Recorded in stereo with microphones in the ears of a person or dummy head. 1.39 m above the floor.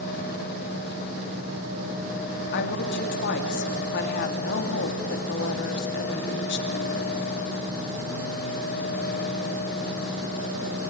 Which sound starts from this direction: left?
A woman speaking, at 2.5 s.